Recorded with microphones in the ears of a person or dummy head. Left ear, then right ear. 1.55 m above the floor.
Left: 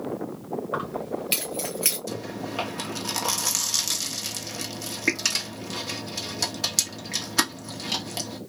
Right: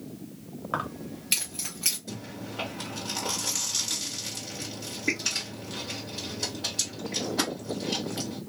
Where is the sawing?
No sawing in this recording.